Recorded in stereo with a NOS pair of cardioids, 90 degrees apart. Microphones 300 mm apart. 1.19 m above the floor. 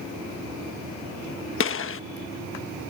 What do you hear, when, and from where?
1.6 s a gunshot: 45° left